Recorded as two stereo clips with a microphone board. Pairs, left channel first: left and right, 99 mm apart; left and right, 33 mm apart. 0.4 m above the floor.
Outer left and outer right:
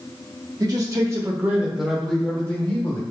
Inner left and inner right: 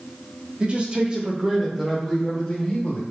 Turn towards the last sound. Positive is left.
turn(degrees=30)  # may be behind; listen again after turning